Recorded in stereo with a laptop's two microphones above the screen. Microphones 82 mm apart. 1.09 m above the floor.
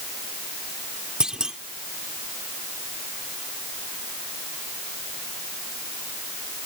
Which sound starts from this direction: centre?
A clunk, at 1.2 s.